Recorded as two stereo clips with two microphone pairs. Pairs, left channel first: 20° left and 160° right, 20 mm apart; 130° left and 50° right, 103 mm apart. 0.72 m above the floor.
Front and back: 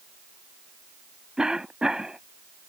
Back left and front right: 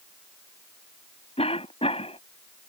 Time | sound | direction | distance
1.4 | a cough | 150° left | ?